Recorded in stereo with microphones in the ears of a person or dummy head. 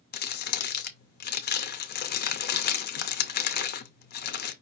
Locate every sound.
0.1 s crumpling: 50° left (ahead or behind), 0.7 m